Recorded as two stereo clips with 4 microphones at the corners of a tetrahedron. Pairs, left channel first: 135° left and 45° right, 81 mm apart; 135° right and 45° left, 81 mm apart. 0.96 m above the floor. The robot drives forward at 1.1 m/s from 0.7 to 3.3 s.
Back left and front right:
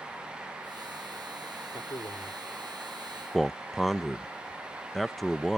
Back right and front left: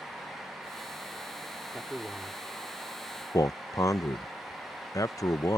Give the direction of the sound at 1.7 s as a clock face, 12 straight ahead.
8 o'clock.